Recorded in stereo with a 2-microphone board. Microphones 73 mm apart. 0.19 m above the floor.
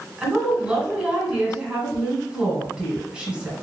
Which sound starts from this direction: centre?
A woman speaking, at 0.2 s.